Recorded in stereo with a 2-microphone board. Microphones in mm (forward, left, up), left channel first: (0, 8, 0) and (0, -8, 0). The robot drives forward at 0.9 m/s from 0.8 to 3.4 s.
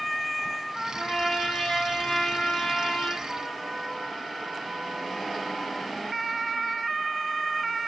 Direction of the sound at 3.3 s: 65° left (ahead or behind).